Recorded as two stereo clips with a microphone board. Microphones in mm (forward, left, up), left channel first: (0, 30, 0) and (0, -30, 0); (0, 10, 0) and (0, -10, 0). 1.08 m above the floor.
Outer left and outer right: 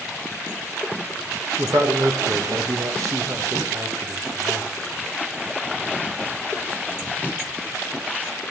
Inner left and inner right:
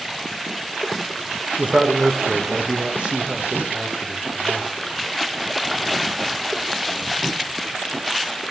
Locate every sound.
1.6 s a man speaking: 65° right (ahead or behind), 1.1 m